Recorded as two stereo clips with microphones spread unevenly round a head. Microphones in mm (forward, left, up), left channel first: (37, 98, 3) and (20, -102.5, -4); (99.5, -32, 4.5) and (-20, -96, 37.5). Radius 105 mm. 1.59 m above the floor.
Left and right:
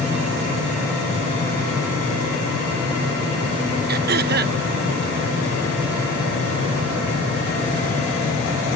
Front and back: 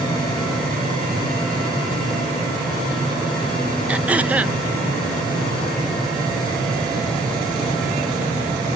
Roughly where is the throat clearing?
Right.